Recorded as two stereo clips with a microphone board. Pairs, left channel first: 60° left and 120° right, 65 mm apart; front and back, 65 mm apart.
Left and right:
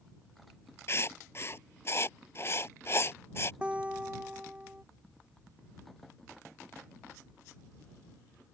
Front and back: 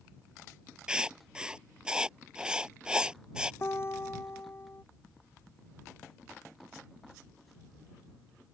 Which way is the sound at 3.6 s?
50° right.